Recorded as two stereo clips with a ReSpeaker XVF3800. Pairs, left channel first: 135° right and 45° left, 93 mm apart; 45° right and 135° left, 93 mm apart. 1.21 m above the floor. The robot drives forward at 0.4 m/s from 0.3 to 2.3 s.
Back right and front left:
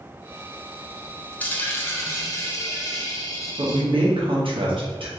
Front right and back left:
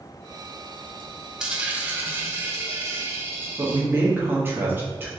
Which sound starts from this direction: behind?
A dropped coin, at 1.4 s.